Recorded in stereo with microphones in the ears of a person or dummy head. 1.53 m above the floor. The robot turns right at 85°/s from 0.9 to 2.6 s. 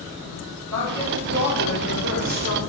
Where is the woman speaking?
15° left, 5 m; by 2.6 s 160° left, 5 m.